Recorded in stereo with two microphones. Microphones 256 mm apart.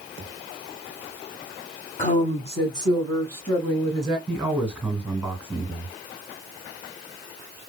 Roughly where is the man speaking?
Centre.